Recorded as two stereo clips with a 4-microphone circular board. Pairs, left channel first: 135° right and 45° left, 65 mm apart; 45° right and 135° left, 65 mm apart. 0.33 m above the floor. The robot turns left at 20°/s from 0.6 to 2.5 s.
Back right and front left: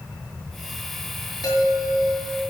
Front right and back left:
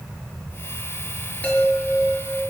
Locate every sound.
1.4 s a chime: 115° right, 6 m; by 2.4 s 135° right, 6 m